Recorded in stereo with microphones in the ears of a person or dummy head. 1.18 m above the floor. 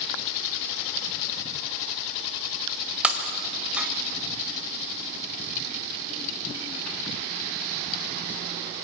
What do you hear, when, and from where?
3.0 s breaking glass: 10° right (ahead or behind), 2 m